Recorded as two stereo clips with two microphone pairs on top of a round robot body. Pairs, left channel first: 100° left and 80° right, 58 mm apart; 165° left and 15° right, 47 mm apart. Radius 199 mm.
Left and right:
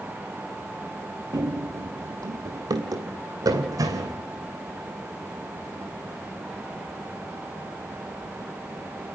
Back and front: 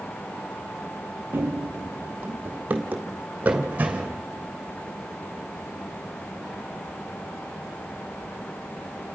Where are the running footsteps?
55° right, 0.8 m; by 4.2 s 75° right, 2.5 m.